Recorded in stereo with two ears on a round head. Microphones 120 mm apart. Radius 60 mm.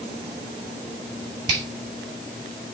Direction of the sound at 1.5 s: 35° right (ahead or behind).